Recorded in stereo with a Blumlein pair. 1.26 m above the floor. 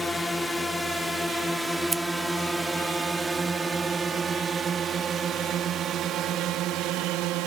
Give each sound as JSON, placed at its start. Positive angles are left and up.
{"t": 0.0, "sound": "a drone", "azimuth_deg": 5}
{"t": 1.9, "sound": "scissors", "azimuth_deg": -15}